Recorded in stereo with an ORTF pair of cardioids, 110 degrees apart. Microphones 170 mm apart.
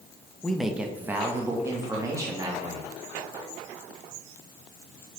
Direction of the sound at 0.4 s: 5° left.